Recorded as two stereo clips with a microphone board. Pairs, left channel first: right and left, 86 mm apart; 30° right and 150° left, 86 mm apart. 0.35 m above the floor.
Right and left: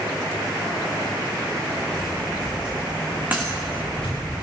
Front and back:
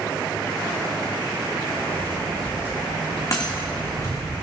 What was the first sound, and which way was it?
Footsteps, 100° right.